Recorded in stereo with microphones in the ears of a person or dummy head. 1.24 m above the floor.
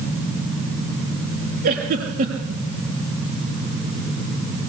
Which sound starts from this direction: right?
A giggle, at 1.6 s.